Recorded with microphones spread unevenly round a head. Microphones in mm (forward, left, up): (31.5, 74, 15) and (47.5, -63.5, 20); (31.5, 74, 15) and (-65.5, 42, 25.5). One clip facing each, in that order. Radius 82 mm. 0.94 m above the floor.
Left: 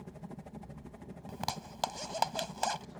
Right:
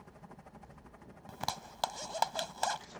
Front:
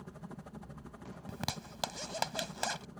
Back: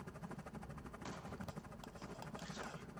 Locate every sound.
0.0 s a helicopter: 80° left
1.3 s a zipper: 15° left